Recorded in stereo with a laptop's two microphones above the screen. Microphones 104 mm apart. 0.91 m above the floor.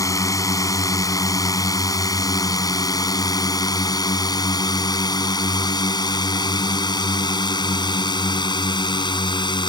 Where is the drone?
30° left (ahead or behind); by 9.7 s 45° left (ahead or behind).